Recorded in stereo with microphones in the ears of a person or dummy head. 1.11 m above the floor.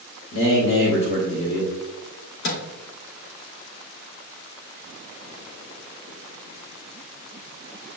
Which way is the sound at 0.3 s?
80° left.